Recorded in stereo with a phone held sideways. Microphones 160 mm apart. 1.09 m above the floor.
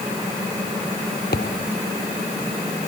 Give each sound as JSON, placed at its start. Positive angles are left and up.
{"t": 1.3, "sound": "a thud", "side_deg": 85}